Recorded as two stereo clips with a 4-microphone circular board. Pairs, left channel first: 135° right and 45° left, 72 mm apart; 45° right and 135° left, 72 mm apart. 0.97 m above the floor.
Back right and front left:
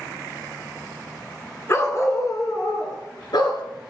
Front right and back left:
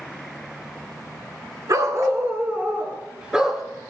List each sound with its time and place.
1.7 s a dog barking: 170° left, 3 m; by 3.6 s 140° right, 3.5 m